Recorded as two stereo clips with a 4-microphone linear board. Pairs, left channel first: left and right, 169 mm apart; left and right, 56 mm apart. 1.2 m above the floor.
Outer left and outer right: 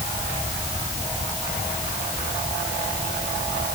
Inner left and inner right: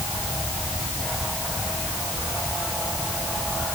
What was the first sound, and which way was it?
Only background noise.